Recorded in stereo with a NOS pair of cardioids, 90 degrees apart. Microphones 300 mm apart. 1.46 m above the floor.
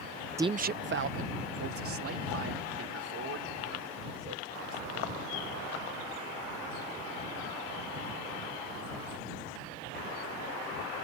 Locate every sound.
0.4 s a man speaking: 10° right; by 5.2 s 55° right